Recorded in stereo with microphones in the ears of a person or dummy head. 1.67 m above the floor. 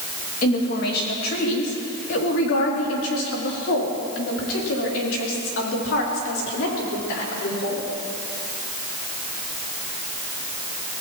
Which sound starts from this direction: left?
A woman speaking, at 0.4 s.